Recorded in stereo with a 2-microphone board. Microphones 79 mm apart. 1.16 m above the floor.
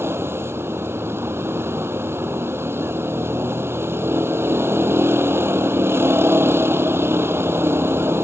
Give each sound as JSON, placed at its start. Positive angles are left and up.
{"t": 0.0, "sound": "a vehicle", "side_deg": -30}